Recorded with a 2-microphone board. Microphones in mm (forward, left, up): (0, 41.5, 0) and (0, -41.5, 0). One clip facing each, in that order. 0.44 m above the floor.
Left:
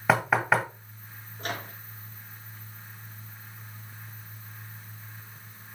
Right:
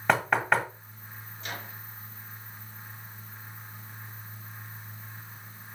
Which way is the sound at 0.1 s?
5° left (ahead or behind).